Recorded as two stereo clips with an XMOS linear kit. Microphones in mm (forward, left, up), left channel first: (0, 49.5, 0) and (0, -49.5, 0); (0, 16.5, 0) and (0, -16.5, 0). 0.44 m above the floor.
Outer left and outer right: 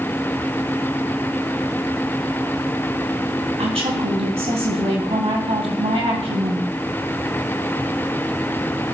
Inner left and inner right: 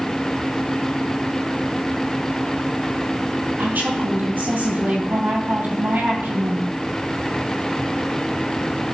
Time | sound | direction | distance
3.6 | a woman speaking | 75° right (ahead or behind) | 2.5 m